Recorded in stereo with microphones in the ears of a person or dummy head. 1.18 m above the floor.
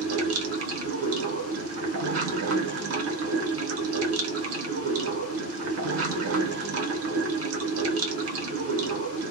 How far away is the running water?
About 0.9 m.